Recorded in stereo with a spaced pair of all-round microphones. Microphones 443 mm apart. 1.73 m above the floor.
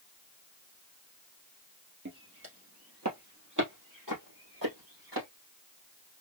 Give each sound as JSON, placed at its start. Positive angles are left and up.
{"t": 2.0, "sound": "footsteps", "side_deg": -25, "distance_m": 2.0}